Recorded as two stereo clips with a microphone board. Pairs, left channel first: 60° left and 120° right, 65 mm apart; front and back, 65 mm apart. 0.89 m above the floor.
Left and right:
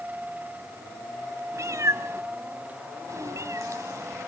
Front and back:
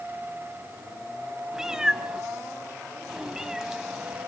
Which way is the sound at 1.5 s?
100° right.